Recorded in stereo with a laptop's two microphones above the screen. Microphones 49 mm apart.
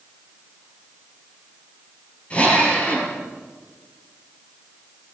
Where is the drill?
30° left (ahead or behind), 10 m.